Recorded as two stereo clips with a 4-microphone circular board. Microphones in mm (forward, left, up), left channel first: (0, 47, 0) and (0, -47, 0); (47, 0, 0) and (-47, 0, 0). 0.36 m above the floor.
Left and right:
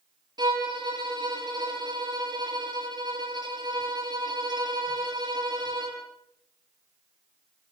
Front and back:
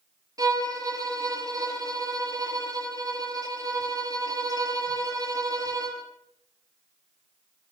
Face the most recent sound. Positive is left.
turn(degrees=-130)